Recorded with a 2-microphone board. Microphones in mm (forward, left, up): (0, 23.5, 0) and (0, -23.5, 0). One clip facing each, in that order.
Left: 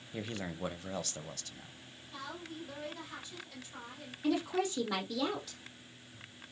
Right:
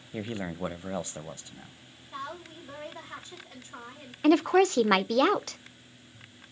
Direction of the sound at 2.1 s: 30° right (ahead or behind).